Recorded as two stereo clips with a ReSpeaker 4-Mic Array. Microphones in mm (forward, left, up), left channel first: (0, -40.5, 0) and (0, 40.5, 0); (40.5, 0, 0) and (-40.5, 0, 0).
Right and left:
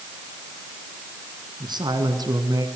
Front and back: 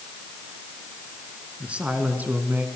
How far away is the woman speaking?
About 3 m.